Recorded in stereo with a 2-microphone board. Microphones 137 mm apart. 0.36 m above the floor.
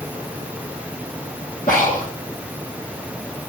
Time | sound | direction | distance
1.7 | breathing | 80° left | 2 m